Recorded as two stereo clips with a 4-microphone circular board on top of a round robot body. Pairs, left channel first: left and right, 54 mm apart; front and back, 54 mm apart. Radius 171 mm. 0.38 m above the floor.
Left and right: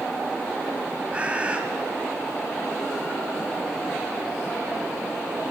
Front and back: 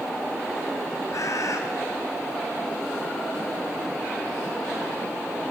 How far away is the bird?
About 2.5 m.